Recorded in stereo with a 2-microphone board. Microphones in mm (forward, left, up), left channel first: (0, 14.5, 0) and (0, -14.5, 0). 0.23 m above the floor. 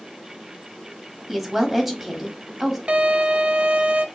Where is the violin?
50° right (ahead or behind), 0.6 m.